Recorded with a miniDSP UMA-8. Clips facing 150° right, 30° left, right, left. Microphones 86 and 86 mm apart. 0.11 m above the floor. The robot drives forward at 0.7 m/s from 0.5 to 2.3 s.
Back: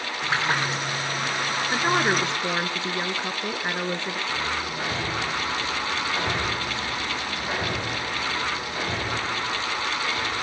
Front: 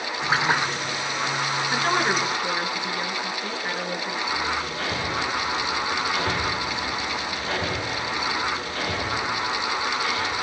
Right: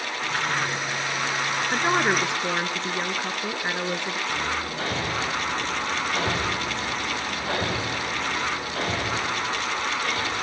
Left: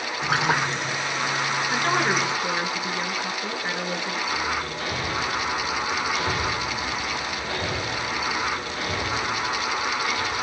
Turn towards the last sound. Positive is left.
turn(degrees=-75)